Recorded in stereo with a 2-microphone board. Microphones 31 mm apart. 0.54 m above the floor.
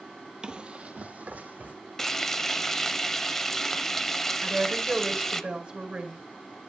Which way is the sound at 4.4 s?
35° right (ahead or behind).